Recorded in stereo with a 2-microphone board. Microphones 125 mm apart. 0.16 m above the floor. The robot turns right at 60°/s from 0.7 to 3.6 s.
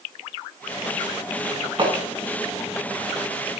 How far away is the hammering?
About 7 m.